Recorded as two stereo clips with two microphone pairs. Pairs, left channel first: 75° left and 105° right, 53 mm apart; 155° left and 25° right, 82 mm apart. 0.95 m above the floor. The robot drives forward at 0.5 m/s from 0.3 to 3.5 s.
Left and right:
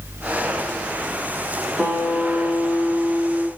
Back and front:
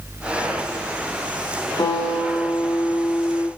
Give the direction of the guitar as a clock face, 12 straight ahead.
6 o'clock.